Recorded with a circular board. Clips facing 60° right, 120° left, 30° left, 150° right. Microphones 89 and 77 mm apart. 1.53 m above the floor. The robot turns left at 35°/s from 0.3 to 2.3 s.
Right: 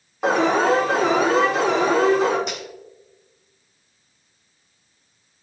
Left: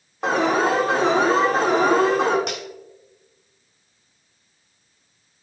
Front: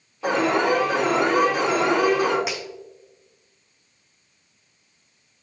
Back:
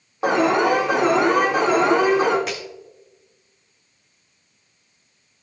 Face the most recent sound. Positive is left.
turn(degrees=110)